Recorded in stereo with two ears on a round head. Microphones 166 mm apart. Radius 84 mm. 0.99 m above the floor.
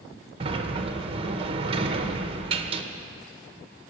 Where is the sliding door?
30° right (ahead or behind), 0.9 m.